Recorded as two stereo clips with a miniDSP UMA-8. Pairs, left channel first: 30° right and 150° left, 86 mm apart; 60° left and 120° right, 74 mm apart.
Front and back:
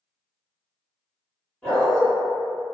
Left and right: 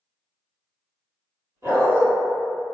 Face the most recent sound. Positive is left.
turn(degrees=-110)